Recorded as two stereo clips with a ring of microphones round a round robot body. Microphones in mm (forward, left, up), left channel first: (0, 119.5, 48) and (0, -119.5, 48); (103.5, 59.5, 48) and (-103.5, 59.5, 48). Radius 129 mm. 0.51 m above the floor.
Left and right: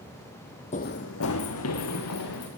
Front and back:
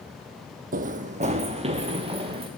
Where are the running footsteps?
145° left, 0.7 m; by 2.5 s 115° left, 3 m.